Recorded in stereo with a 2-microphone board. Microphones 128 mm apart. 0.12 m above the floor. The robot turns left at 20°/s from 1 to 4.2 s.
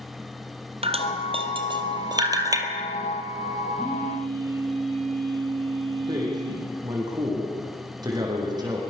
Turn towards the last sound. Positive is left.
turn(degrees=-35)  # may be behind; listen again after turning